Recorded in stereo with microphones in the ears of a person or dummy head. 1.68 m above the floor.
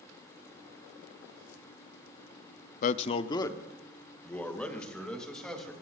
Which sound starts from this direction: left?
A man speaking, at 2.8 s.